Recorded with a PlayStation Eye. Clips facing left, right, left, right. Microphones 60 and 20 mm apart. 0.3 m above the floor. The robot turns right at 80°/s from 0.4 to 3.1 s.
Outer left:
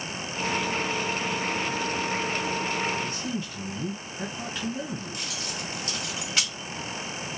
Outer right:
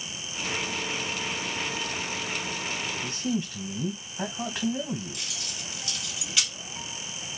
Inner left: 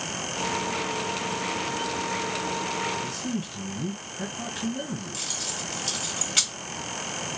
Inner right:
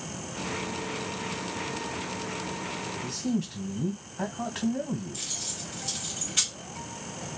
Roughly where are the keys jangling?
Left.